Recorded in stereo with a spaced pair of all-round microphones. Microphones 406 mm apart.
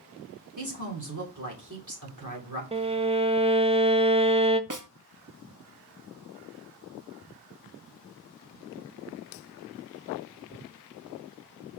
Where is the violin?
15° right (ahead or behind), 0.6 m.